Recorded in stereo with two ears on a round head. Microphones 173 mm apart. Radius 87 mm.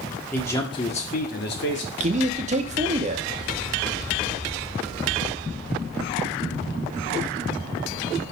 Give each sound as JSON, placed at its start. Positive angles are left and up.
{"t": 0.3, "sound": "a man speaking", "side_deg": 10, "distance_m": 1.5}
{"t": 2.0, "sound": "a man speaking", "side_deg": -35, "distance_m": 0.9}